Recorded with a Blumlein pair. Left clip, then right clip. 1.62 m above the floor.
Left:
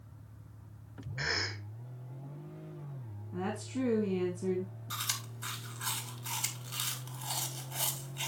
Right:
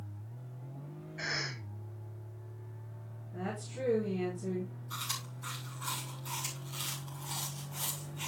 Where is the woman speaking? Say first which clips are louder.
Left 3 dB; 65° left, 5 m.